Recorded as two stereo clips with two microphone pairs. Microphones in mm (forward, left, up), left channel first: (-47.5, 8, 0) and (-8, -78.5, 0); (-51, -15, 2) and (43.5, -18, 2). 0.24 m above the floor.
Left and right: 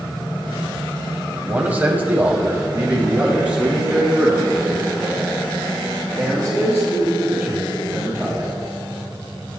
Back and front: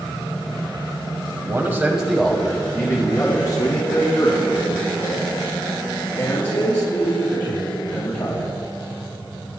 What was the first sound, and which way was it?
A man speaking, 10° right.